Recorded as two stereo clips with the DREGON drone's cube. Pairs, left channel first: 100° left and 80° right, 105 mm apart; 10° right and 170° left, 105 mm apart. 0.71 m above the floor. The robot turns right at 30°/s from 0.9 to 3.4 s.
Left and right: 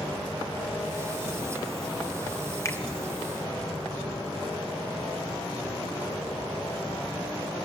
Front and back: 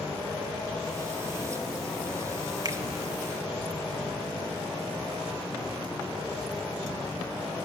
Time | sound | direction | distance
2.6 | a finger snap | 140° left | 0.9 m